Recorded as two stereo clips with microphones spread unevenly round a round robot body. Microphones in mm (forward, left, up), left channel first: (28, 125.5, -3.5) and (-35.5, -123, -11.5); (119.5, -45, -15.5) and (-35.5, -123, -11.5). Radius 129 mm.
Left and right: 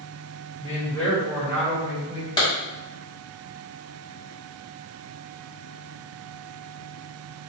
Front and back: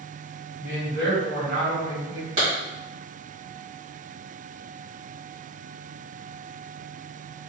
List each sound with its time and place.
0.6 s a man speaking: 135° left, 1.7 m; by 2.3 s 170° right, 2 m
2.4 s a clap: 145° left, 1.7 m